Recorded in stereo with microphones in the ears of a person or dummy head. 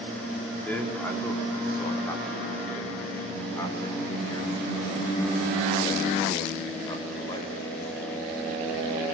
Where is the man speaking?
15° left (ahead or behind), 4 m; by 8.1 s 35° left (ahead or behind), 7.5 m.